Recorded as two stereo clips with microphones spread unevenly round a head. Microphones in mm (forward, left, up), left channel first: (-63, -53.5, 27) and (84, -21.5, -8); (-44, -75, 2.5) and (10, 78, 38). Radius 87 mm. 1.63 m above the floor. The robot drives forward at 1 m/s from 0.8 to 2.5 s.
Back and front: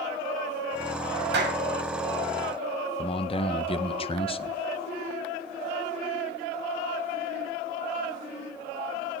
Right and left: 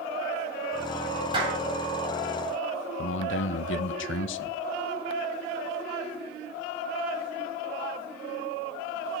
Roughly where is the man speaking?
Behind right.